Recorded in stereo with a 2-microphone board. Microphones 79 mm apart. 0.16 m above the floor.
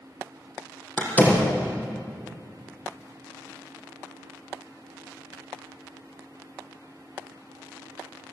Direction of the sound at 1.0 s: 20° left (ahead or behind).